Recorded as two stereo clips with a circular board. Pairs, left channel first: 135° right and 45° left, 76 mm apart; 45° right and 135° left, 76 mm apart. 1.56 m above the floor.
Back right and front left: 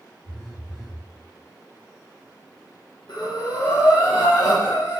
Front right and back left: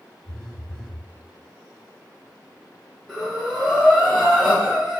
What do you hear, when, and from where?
0.2 s a phone buzzing: 25° left, 1.0 m
3.1 s breathing: 145° right, 1.2 m